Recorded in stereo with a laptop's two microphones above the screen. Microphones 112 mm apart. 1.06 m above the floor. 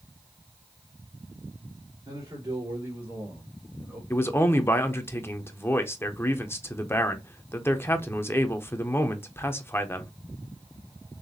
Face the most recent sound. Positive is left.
turn(degrees=20)  # may be behind; listen again after turning